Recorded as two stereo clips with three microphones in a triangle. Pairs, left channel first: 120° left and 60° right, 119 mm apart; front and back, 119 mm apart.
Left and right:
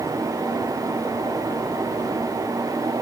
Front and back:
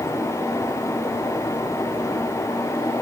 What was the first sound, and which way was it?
Only background noise.